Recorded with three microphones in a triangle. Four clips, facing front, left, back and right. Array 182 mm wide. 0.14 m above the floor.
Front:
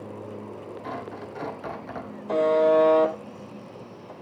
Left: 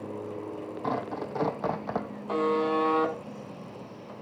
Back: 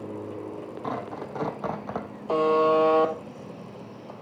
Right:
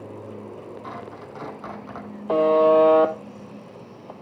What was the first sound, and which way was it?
Tearing paper, 115° left.